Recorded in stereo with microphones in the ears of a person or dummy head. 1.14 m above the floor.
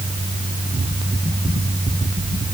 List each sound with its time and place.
Only background noise.